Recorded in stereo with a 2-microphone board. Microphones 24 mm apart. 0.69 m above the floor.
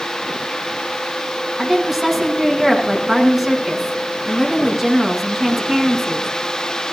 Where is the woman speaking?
20° right (ahead or behind), 6 m.